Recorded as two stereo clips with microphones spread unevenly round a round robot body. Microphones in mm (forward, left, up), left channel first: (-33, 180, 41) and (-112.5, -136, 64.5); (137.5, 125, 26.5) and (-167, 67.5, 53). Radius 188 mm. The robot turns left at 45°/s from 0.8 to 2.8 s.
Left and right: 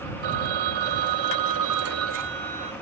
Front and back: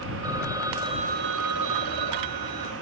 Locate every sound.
0.2 s a phone ringing: 90° right; by 2.7 s 175° right